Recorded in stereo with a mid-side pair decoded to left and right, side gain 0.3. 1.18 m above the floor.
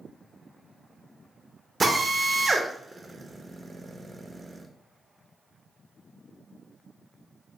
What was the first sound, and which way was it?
A drill, 40° right.